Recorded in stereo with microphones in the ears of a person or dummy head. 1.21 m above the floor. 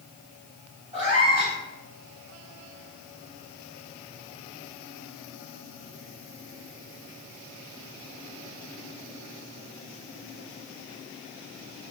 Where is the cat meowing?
25° right (ahead or behind), 1.9 m.